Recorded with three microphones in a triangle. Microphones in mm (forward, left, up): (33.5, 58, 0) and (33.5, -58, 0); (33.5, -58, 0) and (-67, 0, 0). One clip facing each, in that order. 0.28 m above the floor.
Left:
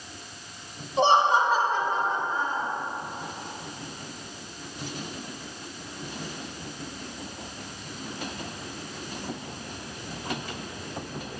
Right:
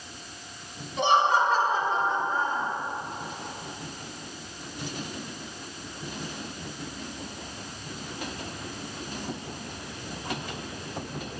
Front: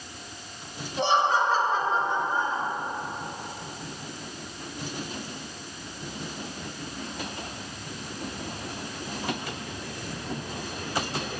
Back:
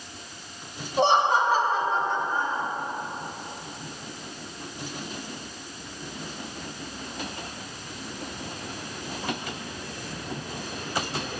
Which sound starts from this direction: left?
Laughter, at 1.0 s.